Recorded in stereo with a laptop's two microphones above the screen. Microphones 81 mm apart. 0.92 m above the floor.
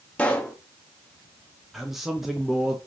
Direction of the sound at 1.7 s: 5° right (ahead or behind).